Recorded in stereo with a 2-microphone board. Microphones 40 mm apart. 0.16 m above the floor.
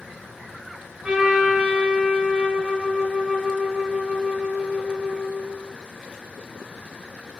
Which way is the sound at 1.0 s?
25° right (ahead or behind).